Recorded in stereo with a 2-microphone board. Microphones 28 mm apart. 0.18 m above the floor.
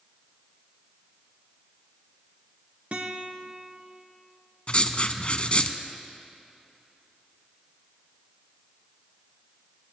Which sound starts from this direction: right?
A guitar, at 2.9 s.